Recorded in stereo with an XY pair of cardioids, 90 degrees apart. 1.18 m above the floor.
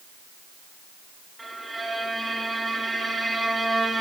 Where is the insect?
I don't hear an insect.